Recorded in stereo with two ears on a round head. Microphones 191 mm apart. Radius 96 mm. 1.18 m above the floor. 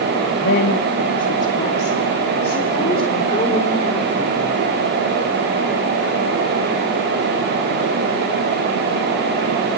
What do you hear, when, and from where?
0.4 s a woman speaking: 50° left (ahead or behind), 1.5 m; by 4.6 s 20° left (ahead or behind), 4.5 m